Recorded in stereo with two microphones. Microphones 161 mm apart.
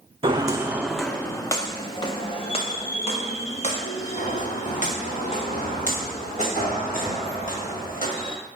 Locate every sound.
0.2 s footsteps: 35° right (ahead or behind), 0.7 m; by 8.3 s 55° left (ahead or behind), 5.5 m